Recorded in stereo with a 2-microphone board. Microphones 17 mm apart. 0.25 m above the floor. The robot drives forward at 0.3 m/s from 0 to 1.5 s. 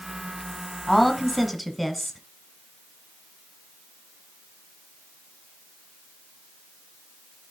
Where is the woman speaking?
Centre (ahead or behind), 1.1 m.